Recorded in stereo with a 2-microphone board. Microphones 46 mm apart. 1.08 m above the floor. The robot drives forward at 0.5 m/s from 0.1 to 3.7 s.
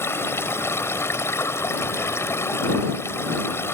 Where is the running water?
70° left (ahead or behind); by 3.8 s 75° left (ahead or behind).